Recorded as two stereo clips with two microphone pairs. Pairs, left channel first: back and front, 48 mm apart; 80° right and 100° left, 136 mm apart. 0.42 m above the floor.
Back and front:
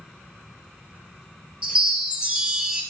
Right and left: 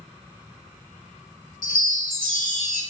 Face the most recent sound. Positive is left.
turn(degrees=-70)